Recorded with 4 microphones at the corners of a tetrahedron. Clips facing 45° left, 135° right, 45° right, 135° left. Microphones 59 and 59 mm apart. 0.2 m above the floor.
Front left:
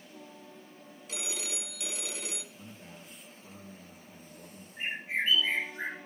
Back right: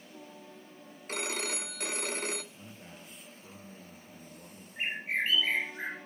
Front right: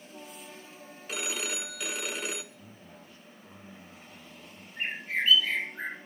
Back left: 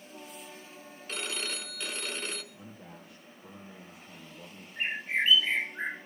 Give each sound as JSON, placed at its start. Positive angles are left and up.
{"t": 1.1, "sound": "a phone ringing", "azimuth_deg": -125, "distance_m": 0.9}
{"t": 2.5, "sound": "a man speaking", "azimuth_deg": 145, "distance_m": 4.0}
{"t": 4.8, "sound": "a bird", "azimuth_deg": -160, "distance_m": 2.5}